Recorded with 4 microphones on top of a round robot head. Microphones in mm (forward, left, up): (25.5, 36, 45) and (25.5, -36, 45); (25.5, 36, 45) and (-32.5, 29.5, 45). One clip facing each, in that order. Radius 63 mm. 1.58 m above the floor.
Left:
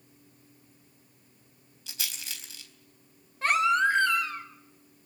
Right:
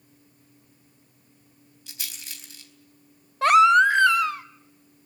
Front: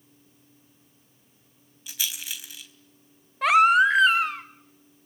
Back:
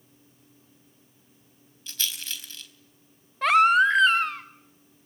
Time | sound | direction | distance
1.9 | a rattle | 85° left | 4 m
3.4 | a baby crying | 80° right | 1.0 m